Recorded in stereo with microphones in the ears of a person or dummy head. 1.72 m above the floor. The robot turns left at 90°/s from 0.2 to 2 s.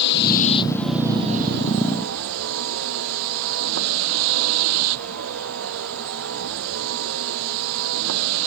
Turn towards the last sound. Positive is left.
turn(degrees=-100)